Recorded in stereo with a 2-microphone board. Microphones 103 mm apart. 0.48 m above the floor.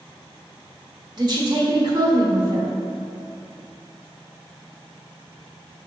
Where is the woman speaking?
45° right (ahead or behind), 1.5 m.